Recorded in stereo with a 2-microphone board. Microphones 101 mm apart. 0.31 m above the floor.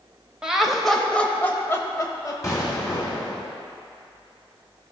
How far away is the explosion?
About 2 m.